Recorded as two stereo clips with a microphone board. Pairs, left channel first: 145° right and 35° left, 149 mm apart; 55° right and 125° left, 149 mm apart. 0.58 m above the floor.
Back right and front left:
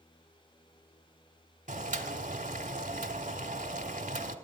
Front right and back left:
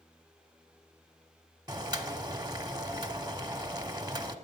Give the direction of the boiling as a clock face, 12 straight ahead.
10 o'clock.